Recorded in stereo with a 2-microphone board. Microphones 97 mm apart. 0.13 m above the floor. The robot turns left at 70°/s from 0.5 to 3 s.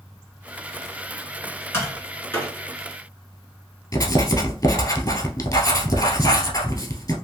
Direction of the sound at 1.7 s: 25° left (ahead or behind).